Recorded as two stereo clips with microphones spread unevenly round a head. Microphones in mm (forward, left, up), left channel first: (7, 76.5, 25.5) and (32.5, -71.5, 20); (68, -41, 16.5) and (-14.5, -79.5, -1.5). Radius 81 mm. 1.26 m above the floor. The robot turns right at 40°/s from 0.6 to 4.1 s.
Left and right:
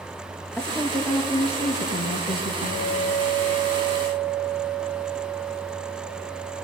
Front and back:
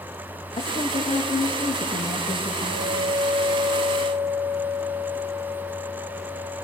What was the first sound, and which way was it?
A woman speaking, 15° left.